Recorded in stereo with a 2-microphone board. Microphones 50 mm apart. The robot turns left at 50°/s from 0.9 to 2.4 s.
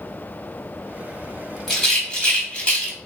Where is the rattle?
165° left, 1.3 m; by 3.0 s 130° left, 1.3 m.